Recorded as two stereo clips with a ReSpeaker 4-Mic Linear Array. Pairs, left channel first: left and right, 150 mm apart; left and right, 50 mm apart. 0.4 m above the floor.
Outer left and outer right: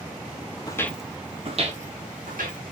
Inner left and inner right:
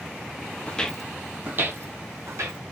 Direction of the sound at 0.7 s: 25° left (ahead or behind).